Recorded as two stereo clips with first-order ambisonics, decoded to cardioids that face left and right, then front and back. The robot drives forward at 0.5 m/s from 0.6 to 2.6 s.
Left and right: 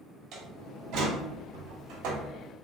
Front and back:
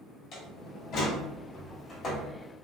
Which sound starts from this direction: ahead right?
A door slam, at 0.3 s.